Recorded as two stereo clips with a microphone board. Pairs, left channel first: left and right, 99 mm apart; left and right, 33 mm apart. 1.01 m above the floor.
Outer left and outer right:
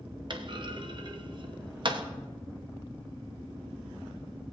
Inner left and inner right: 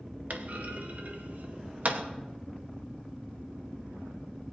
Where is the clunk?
50° right (ahead or behind), 0.8 m.